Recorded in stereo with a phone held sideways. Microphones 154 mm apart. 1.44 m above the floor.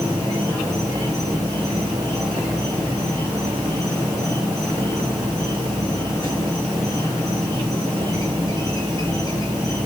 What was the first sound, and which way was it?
An insect, 30° right (ahead or behind).